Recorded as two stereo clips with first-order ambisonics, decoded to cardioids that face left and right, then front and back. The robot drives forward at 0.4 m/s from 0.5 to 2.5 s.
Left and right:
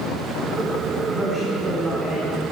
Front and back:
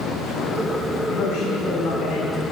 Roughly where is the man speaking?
Ahead.